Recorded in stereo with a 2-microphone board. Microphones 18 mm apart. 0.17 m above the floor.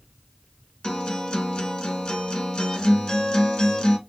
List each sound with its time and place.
0.8 s a guitar: 55° left (ahead or behind), 0.9 m